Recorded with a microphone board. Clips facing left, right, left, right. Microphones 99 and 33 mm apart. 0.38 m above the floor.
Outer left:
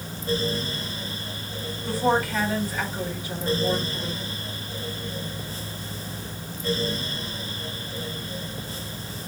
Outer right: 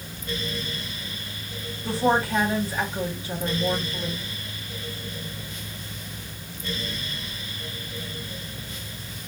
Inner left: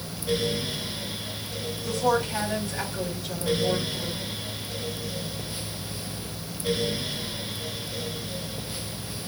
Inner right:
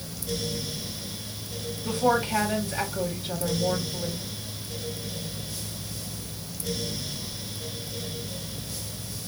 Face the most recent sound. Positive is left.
turn(degrees=-30)  # may be behind; listen again after turning